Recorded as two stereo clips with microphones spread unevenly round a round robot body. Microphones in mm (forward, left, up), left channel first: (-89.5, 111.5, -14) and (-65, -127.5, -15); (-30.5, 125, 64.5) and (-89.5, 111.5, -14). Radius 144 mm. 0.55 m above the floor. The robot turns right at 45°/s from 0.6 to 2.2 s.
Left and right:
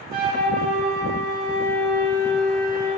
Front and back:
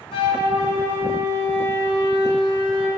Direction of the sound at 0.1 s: 30° right.